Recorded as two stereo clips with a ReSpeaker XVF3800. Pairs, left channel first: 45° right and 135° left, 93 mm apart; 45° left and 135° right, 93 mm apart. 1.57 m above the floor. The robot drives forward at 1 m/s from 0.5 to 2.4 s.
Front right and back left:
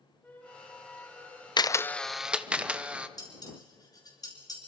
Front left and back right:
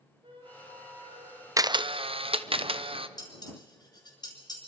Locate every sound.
0.2 s a flute: 115° right, 4 m; by 1.5 s 130° right, 4.5 m
1.6 s a camera shutter: 80° right, 0.5 m; by 3.1 s 145° right, 0.9 m
3.2 s dishes clattering: straight ahead, 5.5 m